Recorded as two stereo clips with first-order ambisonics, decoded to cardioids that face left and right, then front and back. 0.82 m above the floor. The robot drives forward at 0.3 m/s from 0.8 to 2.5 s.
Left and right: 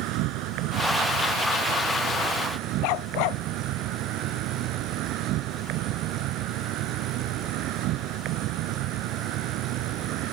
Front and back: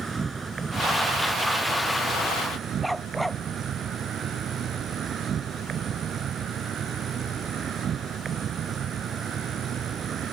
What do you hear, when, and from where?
0.0 s an insect: 105° right; by 10.3 s 120° right
2.8 s a dog barking: 90° left